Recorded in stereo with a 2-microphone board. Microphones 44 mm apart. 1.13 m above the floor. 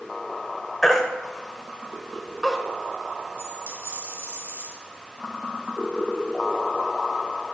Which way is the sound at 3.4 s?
70° right (ahead or behind).